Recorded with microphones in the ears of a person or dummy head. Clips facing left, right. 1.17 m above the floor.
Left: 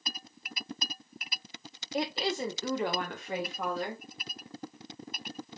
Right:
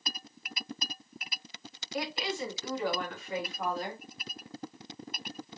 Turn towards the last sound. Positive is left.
turn(degrees=65)  # may be behind; listen again after turning